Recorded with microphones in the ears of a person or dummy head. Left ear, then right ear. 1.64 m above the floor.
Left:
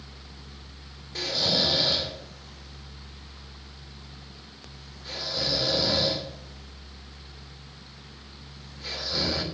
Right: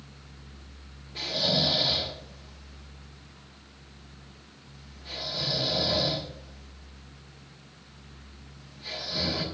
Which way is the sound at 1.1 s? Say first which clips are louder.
Left 2 dB; 55° left (ahead or behind).